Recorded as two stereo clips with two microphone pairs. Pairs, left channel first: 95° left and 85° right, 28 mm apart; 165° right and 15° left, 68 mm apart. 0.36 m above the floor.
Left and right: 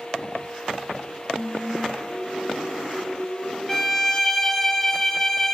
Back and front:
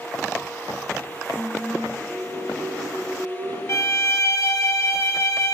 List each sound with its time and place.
1.4 s singing: 70° left, 0.8 m
3.7 s a violin: 170° left, 0.6 m